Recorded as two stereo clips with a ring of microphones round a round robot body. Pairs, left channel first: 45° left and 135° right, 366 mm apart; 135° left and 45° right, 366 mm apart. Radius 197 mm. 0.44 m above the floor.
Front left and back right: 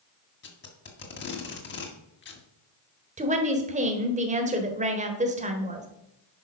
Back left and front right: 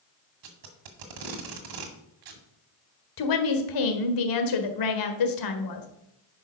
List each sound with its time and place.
0.4 s tape being pulled: 15° right, 1.7 m
3.2 s a woman speaking: 155° left, 1.7 m